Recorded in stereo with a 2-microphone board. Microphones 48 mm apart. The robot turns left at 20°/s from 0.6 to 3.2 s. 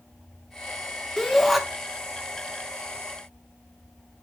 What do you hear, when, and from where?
1.2 s a shout: 10° left (ahead or behind), 1.8 m; by 1.6 s centre (ahead or behind), 1.8 m